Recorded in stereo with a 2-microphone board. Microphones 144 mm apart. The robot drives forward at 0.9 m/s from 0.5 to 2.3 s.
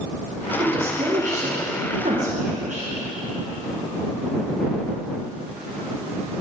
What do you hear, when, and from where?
0.6 s a woman speaking: 40° right (ahead or behind), 1.6 m; by 2.9 s 60° right (ahead or behind), 1.3 m